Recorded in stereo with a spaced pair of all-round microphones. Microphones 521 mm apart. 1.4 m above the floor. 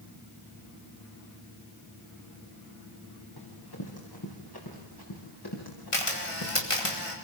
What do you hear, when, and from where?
3.4 s running footsteps: 45° left (ahead or behind), 7.5 m
5.9 s a camera shutter: 80° left, 4.5 m